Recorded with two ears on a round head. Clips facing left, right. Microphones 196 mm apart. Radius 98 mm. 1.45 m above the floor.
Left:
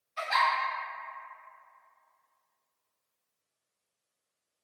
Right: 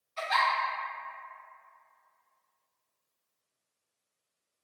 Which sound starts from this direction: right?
A giggle, at 0.2 s.